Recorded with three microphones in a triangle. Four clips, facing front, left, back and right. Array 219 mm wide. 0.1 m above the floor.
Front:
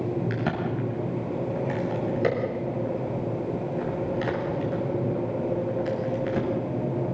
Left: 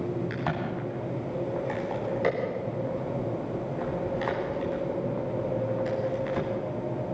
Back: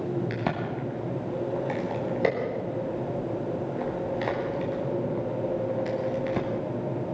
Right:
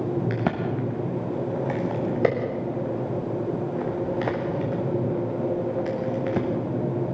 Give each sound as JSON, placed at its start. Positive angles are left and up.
{"t": 0.3, "sound": "a crack", "azimuth_deg": -100, "distance_m": 6.5}